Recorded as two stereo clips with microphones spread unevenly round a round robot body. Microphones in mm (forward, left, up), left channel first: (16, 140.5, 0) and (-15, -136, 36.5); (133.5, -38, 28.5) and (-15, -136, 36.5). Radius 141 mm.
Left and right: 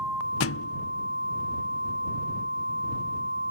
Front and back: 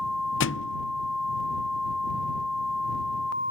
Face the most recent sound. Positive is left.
turn(degrees=40)